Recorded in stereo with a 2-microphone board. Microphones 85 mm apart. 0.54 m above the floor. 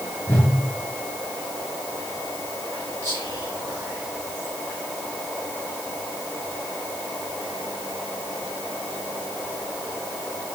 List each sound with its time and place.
0.3 s a whoosh: 25° left (ahead or behind), 2.5 m
3.0 s whispering: 40° right (ahead or behind), 1.7 m